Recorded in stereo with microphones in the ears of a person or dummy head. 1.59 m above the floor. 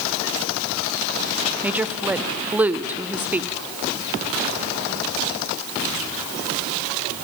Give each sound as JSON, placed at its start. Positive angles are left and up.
{"t": 1.6, "sound": "a woman speaking", "side_deg": -5, "distance_m": 0.8}